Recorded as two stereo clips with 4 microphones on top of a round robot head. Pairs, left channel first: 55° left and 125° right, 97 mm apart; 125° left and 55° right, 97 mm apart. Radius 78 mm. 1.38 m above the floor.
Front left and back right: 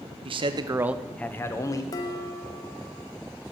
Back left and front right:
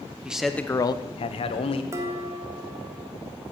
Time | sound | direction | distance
0.2 | a man speaking | 135° right | 1.0 m
1.9 | dishes clattering | 5° left | 1.0 m